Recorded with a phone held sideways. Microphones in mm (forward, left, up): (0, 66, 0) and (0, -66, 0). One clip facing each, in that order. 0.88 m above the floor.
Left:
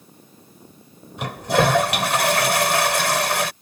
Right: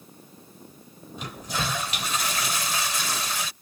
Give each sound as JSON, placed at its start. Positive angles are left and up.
{"t": 1.2, "sound": "a toilet flushing", "side_deg": 80}